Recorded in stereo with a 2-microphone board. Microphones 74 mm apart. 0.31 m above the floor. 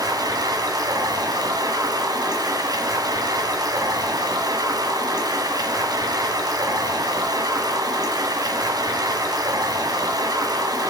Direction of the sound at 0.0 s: 60° right (ahead or behind).